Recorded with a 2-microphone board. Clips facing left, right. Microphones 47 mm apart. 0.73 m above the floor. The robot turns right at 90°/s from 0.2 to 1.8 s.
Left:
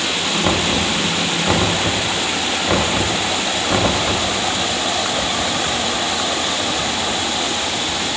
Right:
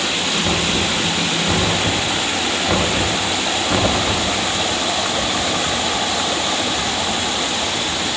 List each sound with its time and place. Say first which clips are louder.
0.4 s knocking: left 3 dB; 30° left (ahead or behind), 1.0 m; by 4.3 s 10° left (ahead or behind), 1.0 m